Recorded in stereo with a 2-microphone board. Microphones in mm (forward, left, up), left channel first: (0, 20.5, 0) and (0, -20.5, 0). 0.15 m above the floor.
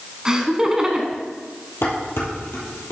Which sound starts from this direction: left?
Dishes clattering, at 1.8 s.